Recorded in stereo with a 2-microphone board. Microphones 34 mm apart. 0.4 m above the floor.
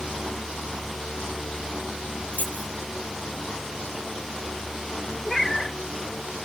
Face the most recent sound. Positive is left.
turn(degrees=10)  # may be behind; listen again after turning